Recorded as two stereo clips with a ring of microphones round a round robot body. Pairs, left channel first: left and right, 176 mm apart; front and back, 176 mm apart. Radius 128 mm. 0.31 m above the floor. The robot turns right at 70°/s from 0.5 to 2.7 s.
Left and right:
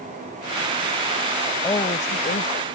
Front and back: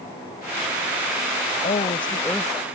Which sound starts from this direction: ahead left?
A woman speaking, at 1.6 s.